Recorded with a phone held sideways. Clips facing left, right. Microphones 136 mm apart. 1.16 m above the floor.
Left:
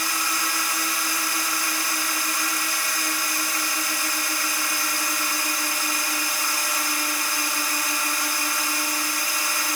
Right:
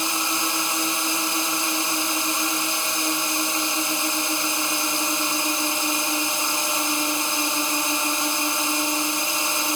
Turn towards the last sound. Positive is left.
turn(degrees=-25)  # may be behind; listen again after turning